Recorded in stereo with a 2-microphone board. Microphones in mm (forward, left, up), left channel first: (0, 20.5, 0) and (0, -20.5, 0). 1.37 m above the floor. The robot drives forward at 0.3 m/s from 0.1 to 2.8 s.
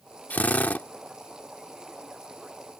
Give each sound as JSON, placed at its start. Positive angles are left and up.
{"t": 0.3, "sound": "a drill", "side_deg": 45}